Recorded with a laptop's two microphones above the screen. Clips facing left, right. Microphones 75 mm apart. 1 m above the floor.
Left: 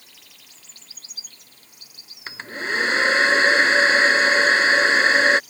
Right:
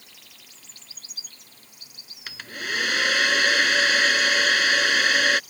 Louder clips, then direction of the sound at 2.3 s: Left 4 dB; 30° left (ahead or behind).